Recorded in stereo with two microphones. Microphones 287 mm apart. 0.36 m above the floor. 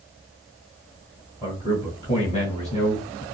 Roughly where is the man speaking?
Left.